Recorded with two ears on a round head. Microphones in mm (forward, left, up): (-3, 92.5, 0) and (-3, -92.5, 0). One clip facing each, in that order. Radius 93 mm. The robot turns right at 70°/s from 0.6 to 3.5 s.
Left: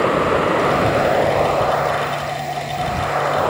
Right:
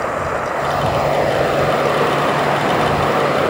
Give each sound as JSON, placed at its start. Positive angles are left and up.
{"t": 0.0, "sound": "running water", "azimuth_deg": 135}